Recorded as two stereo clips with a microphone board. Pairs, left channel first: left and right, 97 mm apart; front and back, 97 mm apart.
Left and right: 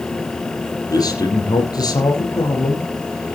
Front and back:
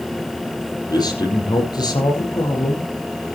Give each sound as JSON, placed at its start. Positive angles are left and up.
{"t": 0.9, "sound": "a man speaking", "azimuth_deg": 45, "distance_m": 4.5}